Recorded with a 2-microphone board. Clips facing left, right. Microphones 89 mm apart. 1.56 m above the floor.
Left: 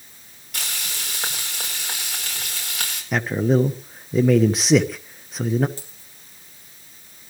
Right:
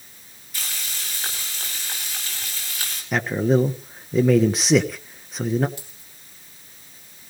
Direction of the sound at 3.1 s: Centre (ahead or behind).